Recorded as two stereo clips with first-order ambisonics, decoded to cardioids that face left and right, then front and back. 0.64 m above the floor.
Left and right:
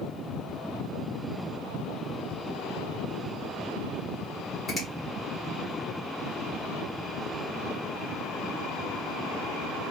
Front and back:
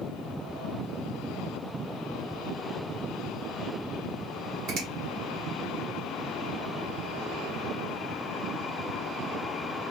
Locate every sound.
4.7 s a finger snap: 175° right, 1.3 m